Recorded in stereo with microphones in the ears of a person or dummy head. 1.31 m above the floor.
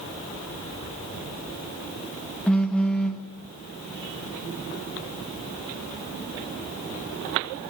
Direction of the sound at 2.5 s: 10° left (ahead or behind).